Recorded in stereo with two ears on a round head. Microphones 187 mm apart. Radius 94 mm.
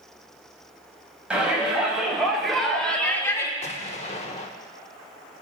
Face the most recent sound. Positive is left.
turn(degrees=35)  # may be behind; listen again after turning